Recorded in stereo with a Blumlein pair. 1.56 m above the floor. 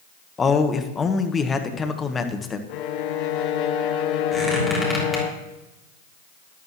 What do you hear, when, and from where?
0.4 s a man speaking: 15° left, 1.2 m
2.7 s a violin: 40° left, 0.8 m
4.3 s a squeak: 5° left, 3 m